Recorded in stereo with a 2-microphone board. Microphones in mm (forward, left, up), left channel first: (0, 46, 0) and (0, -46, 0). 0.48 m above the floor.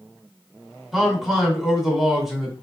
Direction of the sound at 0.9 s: Centre (ahead or behind).